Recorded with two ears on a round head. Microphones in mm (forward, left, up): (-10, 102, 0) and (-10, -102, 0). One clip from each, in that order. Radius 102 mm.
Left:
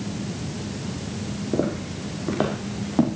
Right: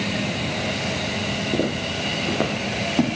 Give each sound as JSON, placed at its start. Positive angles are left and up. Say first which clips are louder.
{"t": 1.5, "sound": "footsteps", "louder": "right 3 dB", "side_deg": 25, "distance_m": 5.5}